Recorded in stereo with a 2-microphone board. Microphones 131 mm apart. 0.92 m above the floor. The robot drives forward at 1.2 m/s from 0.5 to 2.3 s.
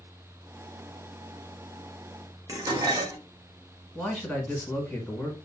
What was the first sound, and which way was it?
Dishes clattering, 25° right (ahead or behind).